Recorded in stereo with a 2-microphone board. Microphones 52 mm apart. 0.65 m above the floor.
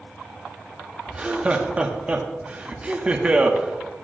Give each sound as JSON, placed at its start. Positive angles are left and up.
{"t": 1.1, "sound": "laughter", "side_deg": -25, "distance_m": 0.9}